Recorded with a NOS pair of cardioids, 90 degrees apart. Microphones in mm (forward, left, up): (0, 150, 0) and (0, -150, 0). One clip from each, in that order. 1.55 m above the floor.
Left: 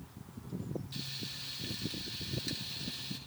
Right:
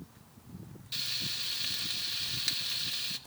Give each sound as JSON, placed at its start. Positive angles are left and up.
{"t": 0.9, "sound": "frying", "azimuth_deg": -65, "distance_m": 2.5}